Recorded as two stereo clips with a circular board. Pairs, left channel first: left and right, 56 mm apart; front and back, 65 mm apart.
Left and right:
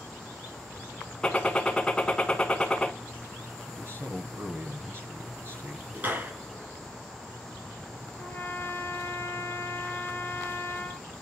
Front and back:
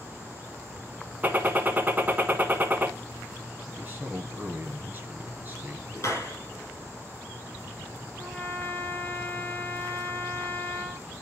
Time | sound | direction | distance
1.2 | a gunshot | 150° left | 1.3 m
3.7 | a man speaking | 125° right | 2.5 m
6.0 | a clap | 35° right | 3.5 m
8.2 | a trumpet | 60° left | 1.4 m